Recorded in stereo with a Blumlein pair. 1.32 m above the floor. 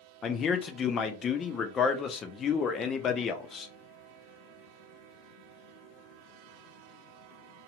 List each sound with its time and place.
0.2 s a man speaking: 25° left, 0.6 m